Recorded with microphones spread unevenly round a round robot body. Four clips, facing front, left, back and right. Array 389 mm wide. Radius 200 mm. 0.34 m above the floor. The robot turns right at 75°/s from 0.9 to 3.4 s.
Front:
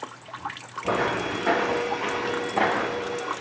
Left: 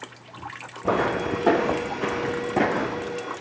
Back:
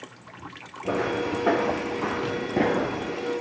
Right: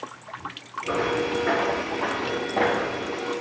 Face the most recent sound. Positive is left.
turn(degrees=-175)